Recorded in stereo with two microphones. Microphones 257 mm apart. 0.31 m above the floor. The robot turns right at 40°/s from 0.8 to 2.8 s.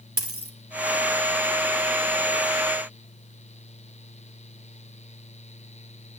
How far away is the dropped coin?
About 2.5 m.